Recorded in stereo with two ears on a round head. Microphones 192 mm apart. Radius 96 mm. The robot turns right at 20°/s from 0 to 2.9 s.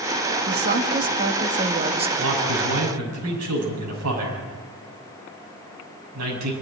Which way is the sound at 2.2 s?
65° right (ahead or behind).